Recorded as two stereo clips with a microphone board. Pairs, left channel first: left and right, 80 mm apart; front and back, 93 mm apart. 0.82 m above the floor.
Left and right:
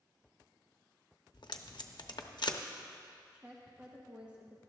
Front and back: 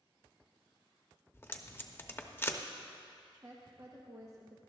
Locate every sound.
1.3 s tape being pulled: 65° left, 0.7 m
3.3 s a woman speaking: 155° right, 0.8 m